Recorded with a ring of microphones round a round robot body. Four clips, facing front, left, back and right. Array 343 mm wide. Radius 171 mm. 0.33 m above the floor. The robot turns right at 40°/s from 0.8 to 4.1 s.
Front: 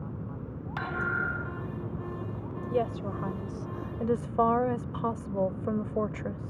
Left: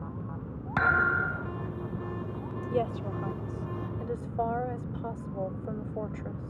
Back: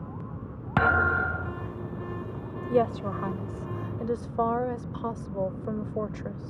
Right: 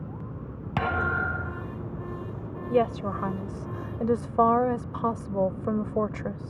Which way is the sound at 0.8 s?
170° right.